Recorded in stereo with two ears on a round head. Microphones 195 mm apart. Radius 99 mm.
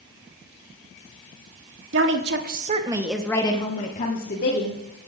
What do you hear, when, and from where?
1.9 s a woman speaking: 60° right (ahead or behind), 1.5 m; by 4.8 s 50° left (ahead or behind), 2.5 m